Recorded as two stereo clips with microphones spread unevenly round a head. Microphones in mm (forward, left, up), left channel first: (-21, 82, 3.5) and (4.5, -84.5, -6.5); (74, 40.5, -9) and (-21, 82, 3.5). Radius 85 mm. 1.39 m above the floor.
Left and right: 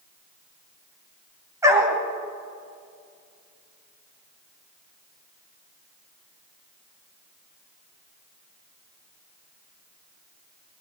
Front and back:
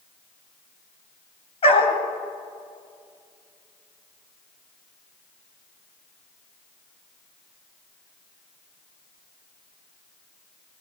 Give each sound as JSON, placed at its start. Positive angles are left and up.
{"t": 1.6, "sound": "a dog barking", "azimuth_deg": -5, "distance_m": 2.0}